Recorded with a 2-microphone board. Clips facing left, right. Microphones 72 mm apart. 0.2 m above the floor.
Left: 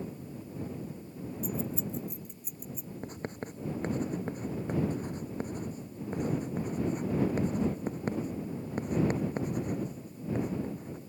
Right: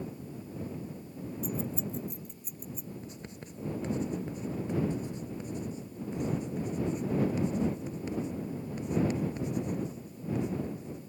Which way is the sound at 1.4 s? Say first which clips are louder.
Even; centre (ahead or behind).